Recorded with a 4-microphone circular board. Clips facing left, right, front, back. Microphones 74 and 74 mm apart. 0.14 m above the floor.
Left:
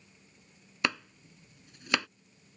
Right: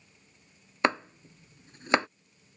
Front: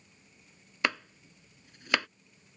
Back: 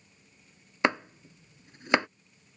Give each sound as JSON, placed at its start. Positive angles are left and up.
{"t": 0.8, "sound": "chopping", "azimuth_deg": -130}